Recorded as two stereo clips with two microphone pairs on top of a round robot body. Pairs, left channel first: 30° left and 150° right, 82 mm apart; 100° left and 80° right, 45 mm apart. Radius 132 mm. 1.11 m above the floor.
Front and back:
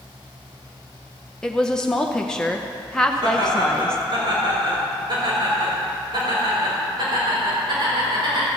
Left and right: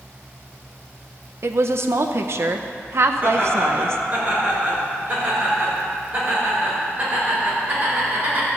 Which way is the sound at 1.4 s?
50° right.